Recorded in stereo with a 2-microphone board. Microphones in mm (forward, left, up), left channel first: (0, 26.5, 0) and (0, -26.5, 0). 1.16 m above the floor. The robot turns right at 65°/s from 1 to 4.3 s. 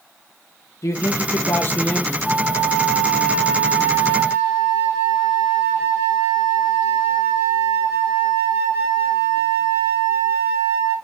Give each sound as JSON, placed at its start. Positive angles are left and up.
{"t": 0.8, "sound": "a man speaking", "azimuth_deg": 95, "distance_m": 1.6}
{"t": 2.2, "sound": "a flute", "azimuth_deg": 110, "distance_m": 2.5}